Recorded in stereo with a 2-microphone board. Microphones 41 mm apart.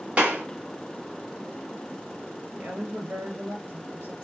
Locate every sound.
0.2 s a clap: 30° right (ahead or behind), 1.3 m
2.6 s a woman speaking: 55° right (ahead or behind), 2 m